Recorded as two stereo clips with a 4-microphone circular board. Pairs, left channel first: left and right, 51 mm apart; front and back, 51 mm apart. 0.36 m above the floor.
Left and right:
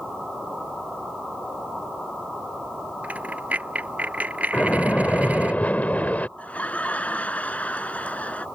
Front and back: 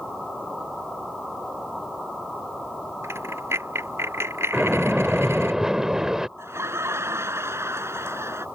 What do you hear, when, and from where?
3.0 s a dropped coin: 150° right
4.5 s a splash: 110° left
6.4 s laughter: 155° left